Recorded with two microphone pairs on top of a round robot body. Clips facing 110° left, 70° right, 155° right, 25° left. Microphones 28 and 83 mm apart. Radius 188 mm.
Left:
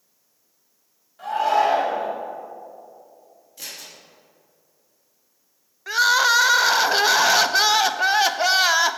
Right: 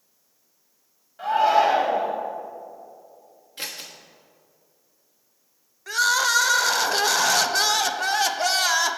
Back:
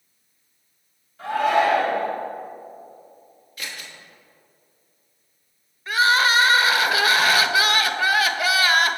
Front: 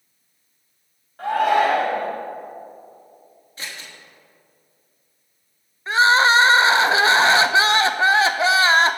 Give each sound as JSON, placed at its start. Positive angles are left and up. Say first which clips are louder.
{"t": 1.2, "sound": "a shout", "louder": "right 1 dB, front 2 dB", "azimuth_deg": 0, "distance_m": 2.5}
{"t": 3.6, "sound": "scissors", "louder": "right 3 dB, even", "azimuth_deg": -30, "distance_m": 1.3}
{"t": 5.9, "sound": "crying", "louder": "left 4 dB, front 4 dB", "azimuth_deg": 65, "distance_m": 0.5}